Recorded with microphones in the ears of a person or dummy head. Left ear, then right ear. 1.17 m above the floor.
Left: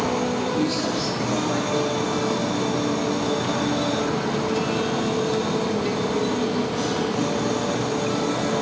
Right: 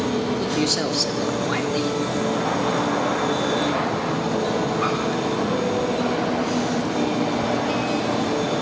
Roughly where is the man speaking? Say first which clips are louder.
Right 2 dB; right.